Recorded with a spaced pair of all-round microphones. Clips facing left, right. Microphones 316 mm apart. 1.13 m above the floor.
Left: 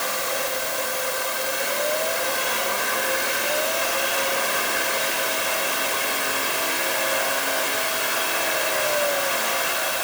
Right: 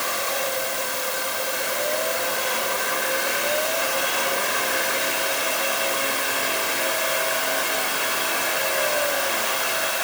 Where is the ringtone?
No ringtone in this recording.